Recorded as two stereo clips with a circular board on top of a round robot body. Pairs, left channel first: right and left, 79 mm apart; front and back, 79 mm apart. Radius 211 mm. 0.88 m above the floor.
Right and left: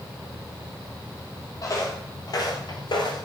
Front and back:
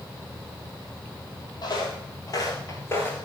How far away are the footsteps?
About 2.5 m.